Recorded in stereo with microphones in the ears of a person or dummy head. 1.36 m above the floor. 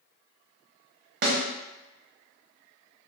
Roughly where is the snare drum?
Right.